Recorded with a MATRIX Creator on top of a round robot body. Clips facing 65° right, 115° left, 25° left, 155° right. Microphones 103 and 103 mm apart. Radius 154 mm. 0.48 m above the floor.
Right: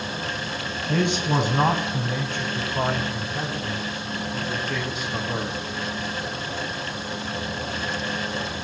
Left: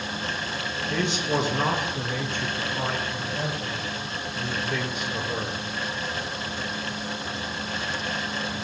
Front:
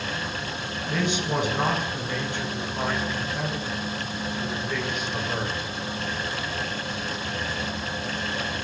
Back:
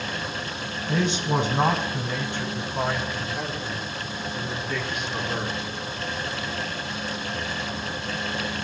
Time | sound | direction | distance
0.9 | a man speaking | 100° right | 5.5 m